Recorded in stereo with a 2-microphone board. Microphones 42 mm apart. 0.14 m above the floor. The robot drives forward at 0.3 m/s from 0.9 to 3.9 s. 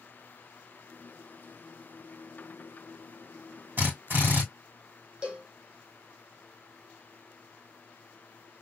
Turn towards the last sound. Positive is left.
turn(degrees=-25)  # may be behind; listen again after turning